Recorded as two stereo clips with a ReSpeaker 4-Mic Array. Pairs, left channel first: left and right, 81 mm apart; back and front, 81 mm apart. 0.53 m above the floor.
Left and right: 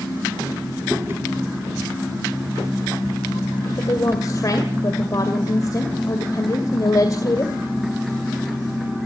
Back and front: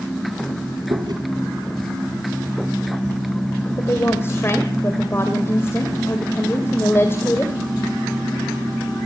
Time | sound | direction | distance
0.9 | chewing | 25° right | 3.5 m
3.8 | a woman speaking | 125° left | 2 m